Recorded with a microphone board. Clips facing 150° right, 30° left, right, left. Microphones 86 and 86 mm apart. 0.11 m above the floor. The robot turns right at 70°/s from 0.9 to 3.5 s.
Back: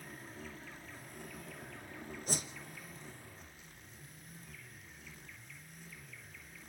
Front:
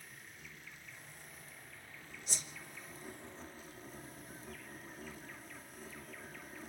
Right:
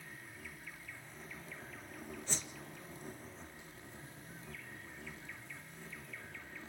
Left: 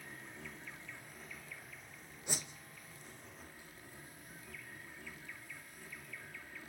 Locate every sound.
0.0 s an insect: 155° left, 2.5 m; by 6.7 s 20° right, 2.5 m
2.3 s a whoosh: 165° left, 1.3 m; by 2.5 s straight behind, 1.3 m